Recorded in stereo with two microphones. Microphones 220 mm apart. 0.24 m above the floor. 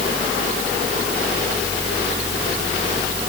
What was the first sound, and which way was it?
Only background noise.